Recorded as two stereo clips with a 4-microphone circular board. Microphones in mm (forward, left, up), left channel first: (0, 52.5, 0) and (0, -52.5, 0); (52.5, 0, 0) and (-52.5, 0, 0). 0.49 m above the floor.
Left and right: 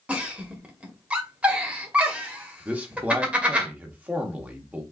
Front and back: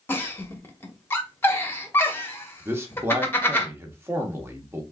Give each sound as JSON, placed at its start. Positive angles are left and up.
{"t": 0.1, "sound": "a giggle", "azimuth_deg": -30, "distance_m": 0.8}
{"t": 2.6, "sound": "a man speaking", "azimuth_deg": -145, "distance_m": 0.8}